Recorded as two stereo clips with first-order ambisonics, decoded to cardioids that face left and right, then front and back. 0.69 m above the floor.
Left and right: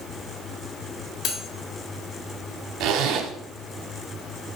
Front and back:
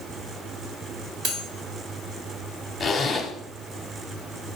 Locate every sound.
1.2 s cutlery clinking: 140° left, 1.6 m
2.8 s a zipper: 80° right, 0.8 m